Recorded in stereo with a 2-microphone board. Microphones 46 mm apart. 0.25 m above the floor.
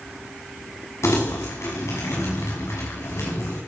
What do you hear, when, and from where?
1.0 s crumpling: 80° left, 8 m